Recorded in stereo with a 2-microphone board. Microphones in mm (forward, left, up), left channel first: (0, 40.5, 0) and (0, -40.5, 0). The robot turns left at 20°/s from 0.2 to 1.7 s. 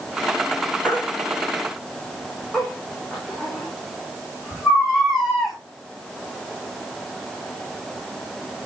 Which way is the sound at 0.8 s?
20° left (ahead or behind).